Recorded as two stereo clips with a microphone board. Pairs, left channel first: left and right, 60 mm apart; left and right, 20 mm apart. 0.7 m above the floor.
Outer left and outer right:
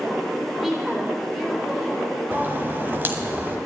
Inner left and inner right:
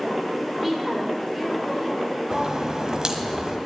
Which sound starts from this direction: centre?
A woman speaking, at 0.6 s.